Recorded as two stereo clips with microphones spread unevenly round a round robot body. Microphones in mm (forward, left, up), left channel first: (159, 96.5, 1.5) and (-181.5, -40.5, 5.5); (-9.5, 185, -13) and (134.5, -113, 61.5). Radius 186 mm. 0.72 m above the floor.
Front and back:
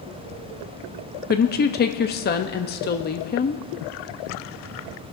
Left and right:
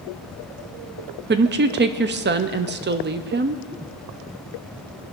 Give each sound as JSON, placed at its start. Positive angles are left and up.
{"t": 1.3, "sound": "a woman speaking", "azimuth_deg": -10, "distance_m": 0.7}